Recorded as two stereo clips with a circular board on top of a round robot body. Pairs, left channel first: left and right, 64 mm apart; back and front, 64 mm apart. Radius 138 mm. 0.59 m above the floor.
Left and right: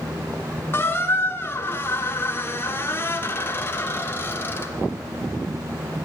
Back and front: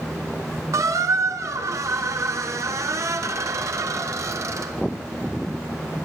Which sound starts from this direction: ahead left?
A squeak, at 0.7 s.